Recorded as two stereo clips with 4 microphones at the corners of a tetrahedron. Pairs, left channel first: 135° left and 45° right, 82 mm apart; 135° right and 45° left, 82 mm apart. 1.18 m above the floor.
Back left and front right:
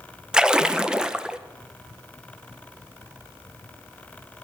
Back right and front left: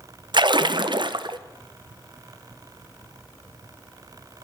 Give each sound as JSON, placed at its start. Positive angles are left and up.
{"t": 0.3, "sound": "a splash", "azimuth_deg": 35, "distance_m": 0.5}